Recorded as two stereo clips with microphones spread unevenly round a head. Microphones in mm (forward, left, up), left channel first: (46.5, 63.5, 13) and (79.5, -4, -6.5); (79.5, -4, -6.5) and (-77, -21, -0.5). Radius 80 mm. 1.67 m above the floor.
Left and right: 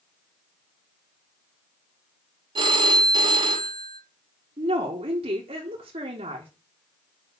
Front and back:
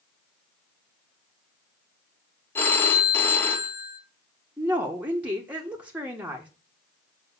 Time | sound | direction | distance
2.5 | a phone ringing | 70° right | 1.5 m
4.6 | a woman speaking | 95° right | 1.4 m